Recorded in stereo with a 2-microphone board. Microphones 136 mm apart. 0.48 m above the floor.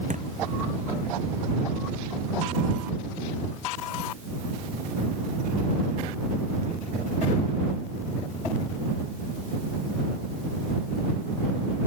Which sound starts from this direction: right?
A thud, at 0.1 s.